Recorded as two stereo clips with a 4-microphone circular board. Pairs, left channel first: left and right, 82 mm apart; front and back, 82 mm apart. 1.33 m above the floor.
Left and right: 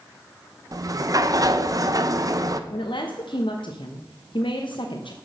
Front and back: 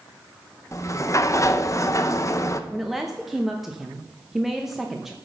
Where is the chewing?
I don't hear chewing.